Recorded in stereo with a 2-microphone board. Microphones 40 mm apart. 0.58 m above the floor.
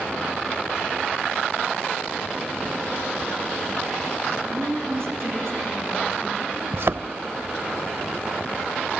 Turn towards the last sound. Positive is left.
turn(degrees=-65)  # may be behind; listen again after turning